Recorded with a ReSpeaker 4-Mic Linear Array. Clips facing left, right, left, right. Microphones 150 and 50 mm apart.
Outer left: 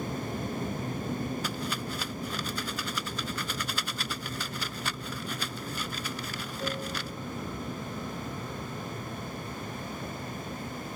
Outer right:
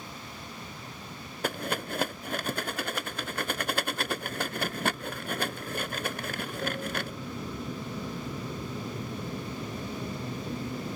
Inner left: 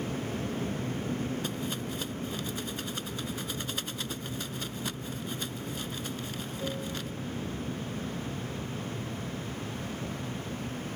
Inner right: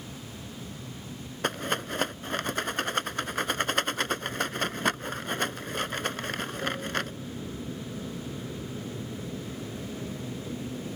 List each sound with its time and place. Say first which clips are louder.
0.0 s an aircraft: outer left 10 dB, inner left 9 dB; 55° left (ahead or behind); by 11.0 s 30° right (ahead or behind)
1.4 s a rattle: outer right 2 dB, inner right 5 dB; 60° right (ahead or behind)